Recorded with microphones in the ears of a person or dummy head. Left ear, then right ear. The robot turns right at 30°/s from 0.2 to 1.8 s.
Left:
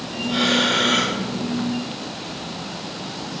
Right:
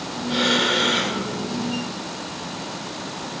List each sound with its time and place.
0.3 s breathing: 25° right (ahead or behind), 3 m; by 1.2 s centre (ahead or behind), 3 m